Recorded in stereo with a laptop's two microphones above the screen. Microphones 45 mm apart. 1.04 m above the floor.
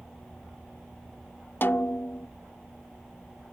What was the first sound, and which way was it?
A snare drum, 50° left (ahead or behind).